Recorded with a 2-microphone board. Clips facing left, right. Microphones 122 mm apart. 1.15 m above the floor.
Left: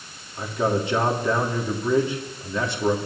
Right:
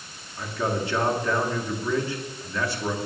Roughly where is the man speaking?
Left.